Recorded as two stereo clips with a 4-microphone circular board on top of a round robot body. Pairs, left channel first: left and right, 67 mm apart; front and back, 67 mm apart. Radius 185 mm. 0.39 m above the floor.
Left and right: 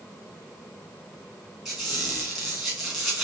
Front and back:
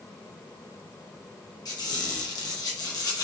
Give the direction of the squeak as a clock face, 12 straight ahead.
12 o'clock.